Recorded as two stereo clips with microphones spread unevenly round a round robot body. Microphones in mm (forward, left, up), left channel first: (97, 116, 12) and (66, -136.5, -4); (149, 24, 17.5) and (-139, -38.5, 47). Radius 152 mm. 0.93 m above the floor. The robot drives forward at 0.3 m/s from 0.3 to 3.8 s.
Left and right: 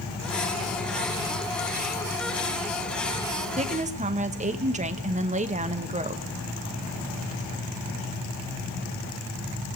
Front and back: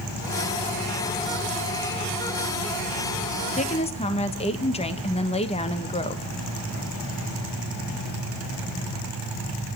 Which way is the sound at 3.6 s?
45° right.